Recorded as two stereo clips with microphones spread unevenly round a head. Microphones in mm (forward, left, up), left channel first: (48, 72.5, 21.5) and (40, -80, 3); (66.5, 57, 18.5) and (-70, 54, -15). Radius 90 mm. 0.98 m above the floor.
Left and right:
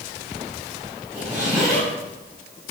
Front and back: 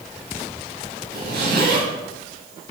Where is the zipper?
170° right, 6 m.